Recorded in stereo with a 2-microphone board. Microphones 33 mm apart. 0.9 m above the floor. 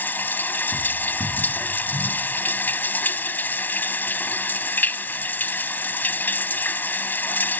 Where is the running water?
75° left (ahead or behind).